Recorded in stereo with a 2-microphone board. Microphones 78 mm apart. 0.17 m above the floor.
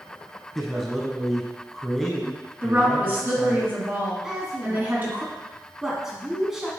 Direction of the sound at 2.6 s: 25° right (ahead or behind).